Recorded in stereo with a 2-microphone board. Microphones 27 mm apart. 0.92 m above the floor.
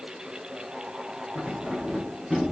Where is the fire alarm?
I don't hear a fire alarm.